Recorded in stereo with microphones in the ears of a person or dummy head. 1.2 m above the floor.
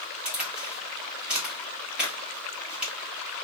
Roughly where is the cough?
I don't hear a cough.